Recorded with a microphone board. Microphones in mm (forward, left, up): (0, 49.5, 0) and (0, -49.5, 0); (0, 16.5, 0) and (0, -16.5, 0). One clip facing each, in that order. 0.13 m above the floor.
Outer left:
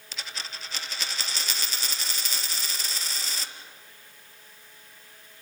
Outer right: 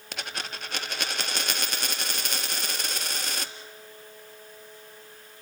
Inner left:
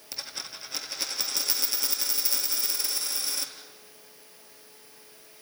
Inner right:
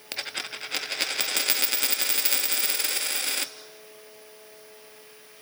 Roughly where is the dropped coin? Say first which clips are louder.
Outer right 4 dB, inner right 6 dB; right.